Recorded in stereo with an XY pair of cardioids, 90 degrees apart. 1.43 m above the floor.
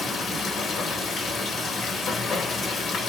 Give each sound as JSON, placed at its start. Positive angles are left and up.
{"t": 0.0, "sound": "running water", "azimuth_deg": 60, "distance_m": 1.3}